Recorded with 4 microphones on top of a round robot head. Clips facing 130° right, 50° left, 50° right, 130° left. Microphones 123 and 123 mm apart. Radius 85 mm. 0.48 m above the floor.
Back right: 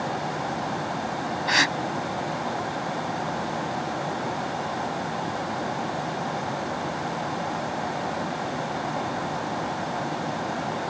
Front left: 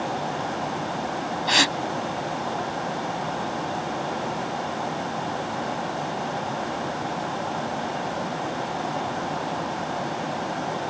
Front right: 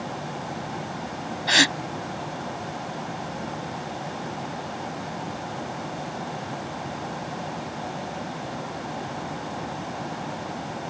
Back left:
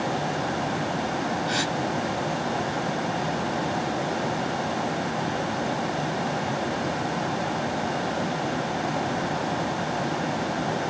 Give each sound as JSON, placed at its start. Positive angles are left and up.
{"t": 1.5, "sound": "a gasp", "azimuth_deg": -25}